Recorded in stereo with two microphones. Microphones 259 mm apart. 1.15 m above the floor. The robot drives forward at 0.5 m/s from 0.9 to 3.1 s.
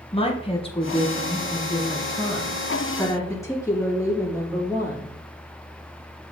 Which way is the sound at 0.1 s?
20° left (ahead or behind).